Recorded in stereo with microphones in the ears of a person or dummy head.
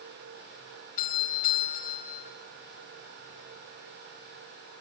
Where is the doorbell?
45° left (ahead or behind), 4 m.